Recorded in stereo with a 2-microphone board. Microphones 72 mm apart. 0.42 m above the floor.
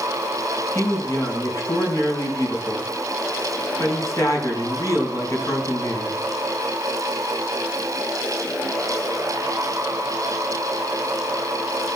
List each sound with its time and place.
0.8 s a man speaking: 50° left (ahead or behind), 4.5 m